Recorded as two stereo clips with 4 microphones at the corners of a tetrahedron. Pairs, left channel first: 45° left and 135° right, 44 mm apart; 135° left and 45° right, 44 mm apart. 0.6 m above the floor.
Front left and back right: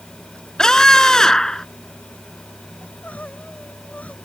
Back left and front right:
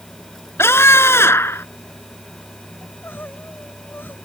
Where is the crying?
100° left.